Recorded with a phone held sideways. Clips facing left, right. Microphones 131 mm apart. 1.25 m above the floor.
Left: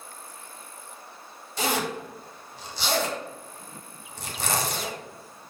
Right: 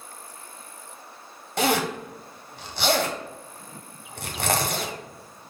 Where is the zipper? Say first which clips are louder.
Right 4 dB; 65° right (ahead or behind), 0.7 m.